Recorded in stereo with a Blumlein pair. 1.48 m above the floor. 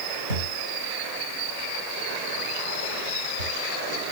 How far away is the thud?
About 4.5 m.